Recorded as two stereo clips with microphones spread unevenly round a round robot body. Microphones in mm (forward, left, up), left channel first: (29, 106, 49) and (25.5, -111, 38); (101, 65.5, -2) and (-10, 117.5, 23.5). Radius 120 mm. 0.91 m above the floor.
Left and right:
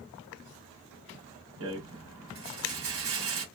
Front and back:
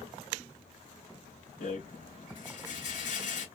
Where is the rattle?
70° right, 3.5 m.